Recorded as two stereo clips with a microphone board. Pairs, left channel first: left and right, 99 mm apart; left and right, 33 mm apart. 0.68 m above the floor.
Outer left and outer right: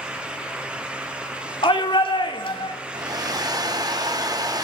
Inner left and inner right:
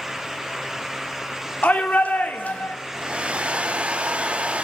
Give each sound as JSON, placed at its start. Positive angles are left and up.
{"t": 1.6, "sound": "a shout", "side_deg": 55, "distance_m": 1.4}
{"t": 2.9, "sound": "a hair dryer", "side_deg": -40, "distance_m": 0.7}